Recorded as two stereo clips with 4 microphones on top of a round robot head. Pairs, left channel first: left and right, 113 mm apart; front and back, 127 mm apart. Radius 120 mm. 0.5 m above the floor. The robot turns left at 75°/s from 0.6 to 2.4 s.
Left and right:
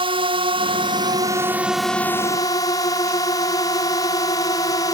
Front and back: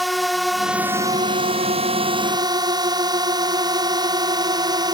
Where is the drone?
90° right; by 5.0 s 135° left.